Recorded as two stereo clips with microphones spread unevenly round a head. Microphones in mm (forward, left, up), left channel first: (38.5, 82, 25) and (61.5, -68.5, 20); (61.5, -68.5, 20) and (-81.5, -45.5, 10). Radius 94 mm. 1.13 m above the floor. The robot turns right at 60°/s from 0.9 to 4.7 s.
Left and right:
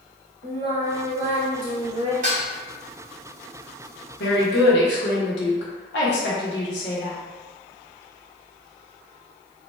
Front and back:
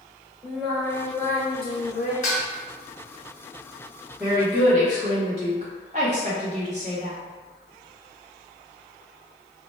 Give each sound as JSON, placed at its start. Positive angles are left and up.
{"t": 0.4, "sound": "singing", "azimuth_deg": -100, "distance_m": 1.3}
{"t": 2.2, "sound": "dishes clattering", "azimuth_deg": -45, "distance_m": 1.1}
{"t": 4.2, "sound": "a woman speaking", "azimuth_deg": 85, "distance_m": 1.1}